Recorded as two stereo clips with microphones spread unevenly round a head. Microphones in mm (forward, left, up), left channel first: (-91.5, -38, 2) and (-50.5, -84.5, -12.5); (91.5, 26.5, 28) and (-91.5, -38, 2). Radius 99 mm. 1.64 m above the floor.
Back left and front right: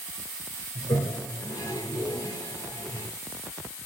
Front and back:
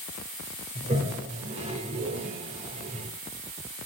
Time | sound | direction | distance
0.8 | a toilet flushing | 140° left | 4.5 m